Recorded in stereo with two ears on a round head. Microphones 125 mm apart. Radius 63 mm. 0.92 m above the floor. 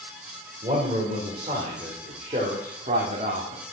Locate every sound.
0.6 s a man speaking: 30° right (ahead or behind), 3.5 m; by 3.6 s 50° right (ahead or behind), 2 m